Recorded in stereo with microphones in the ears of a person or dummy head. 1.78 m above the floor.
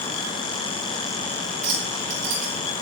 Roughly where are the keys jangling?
Right.